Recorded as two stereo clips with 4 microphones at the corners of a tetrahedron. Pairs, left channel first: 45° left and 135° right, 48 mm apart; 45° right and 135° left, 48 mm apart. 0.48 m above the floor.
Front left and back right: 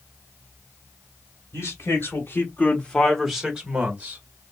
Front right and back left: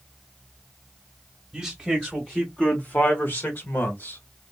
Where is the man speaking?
45° left, 1.8 m; by 4.2 s 80° right, 1.9 m.